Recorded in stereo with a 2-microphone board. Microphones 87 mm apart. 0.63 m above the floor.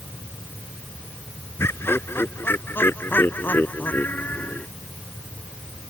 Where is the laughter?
25° left (ahead or behind); by 4.7 s 15° left (ahead or behind).